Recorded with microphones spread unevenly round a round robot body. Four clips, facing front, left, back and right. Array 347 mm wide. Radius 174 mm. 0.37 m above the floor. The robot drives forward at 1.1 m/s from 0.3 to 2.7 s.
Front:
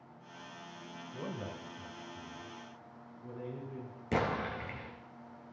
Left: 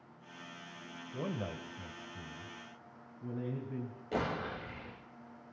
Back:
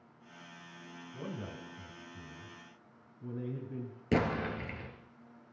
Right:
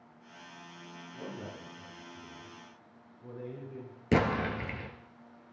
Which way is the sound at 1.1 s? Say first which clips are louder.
Left 4 dB, front 1 dB; 90° left.